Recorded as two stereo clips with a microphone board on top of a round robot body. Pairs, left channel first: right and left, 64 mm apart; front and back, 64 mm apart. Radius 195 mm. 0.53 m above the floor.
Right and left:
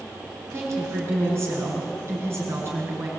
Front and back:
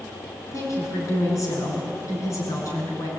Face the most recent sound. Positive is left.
turn(degrees=40)